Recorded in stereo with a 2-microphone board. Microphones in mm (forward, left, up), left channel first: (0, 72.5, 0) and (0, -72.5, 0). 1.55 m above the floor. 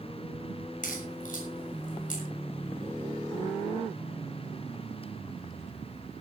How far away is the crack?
About 6.5 m.